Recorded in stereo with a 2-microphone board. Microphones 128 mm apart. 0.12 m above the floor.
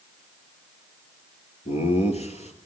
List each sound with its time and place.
1.6 s laughter: 55° left (ahead or behind), 2 m